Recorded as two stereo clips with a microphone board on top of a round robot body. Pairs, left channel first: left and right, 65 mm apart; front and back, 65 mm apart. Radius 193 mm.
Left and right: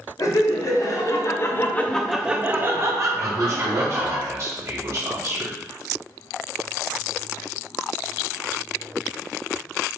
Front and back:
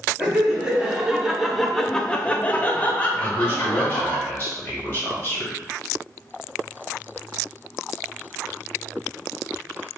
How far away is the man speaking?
About 1.6 m.